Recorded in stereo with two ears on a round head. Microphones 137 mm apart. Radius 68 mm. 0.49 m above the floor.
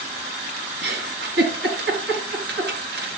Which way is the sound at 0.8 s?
85° right.